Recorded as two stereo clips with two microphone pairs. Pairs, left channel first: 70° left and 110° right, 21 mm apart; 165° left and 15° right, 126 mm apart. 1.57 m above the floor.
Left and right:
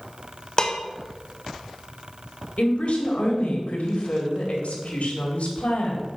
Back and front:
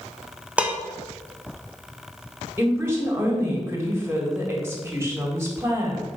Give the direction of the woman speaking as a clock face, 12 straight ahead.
10 o'clock.